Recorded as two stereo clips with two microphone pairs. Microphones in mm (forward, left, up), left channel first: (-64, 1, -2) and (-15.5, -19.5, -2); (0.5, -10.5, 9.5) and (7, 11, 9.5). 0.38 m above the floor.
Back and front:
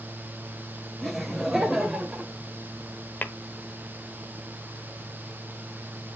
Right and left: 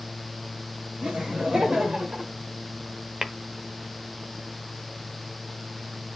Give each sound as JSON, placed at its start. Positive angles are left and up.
{"t": 1.0, "sound": "laughter", "azimuth_deg": 70, "distance_m": 2.0}
{"t": 3.2, "sound": "tapping", "azimuth_deg": 130, "distance_m": 0.8}